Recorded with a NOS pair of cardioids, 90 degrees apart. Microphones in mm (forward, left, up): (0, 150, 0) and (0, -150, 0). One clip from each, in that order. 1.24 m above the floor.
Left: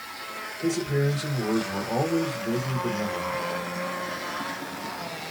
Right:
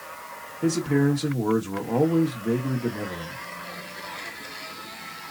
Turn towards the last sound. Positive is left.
turn(degrees=-50)